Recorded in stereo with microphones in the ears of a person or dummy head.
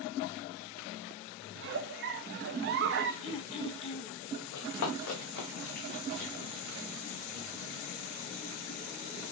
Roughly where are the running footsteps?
Left.